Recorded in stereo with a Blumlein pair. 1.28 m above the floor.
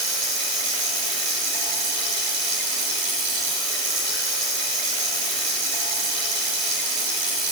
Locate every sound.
0.0 s running water: 40° right, 10 m